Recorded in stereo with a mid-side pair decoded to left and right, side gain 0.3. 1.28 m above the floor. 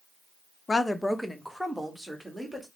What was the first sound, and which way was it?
A woman speaking, 40° left.